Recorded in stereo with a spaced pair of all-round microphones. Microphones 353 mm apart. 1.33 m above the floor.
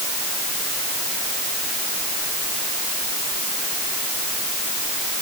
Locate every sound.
Only background noise.